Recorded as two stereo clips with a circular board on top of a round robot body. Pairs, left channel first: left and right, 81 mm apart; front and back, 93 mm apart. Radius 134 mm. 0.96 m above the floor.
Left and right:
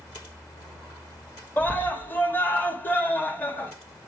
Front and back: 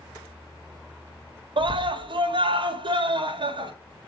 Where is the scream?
155° left, 1.5 m.